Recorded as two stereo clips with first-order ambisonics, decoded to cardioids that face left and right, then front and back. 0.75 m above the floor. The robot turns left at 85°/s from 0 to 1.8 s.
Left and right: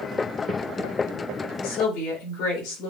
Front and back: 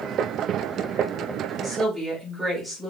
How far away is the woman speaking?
About 5.5 m.